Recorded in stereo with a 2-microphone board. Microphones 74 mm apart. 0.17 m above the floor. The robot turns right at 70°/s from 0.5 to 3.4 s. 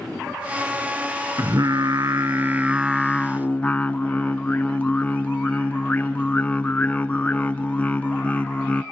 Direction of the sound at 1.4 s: 115° right.